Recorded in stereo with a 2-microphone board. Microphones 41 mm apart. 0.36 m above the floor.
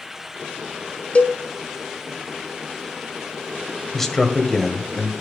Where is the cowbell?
40° left (ahead or behind), 1.7 m.